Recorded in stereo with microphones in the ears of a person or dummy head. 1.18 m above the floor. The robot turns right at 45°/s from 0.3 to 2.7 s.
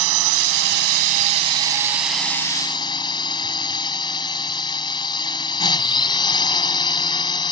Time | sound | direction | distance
0.0 | a drone | 80° right | ?